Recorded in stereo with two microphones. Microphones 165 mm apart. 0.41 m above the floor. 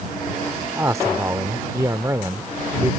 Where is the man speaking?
20° right (ahead or behind).